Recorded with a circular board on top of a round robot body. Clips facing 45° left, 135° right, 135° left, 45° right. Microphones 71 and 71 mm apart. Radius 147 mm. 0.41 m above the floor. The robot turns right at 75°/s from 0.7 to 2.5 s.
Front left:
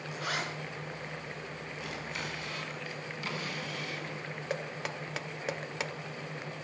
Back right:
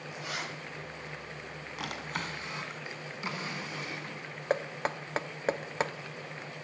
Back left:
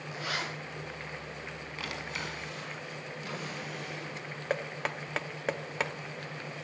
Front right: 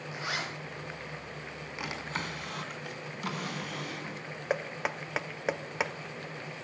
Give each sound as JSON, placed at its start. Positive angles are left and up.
{"t": 0.1, "sound": "a zipper", "azimuth_deg": 20, "distance_m": 5.5}
{"t": 1.8, "sound": "a drawer", "azimuth_deg": -125, "distance_m": 2.5}
{"t": 4.5, "sound": "knocking", "azimuth_deg": -125, "distance_m": 0.8}